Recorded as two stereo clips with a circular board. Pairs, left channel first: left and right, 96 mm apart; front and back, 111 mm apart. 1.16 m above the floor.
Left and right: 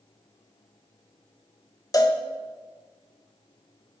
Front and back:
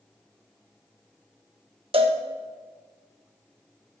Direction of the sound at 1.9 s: 145° left.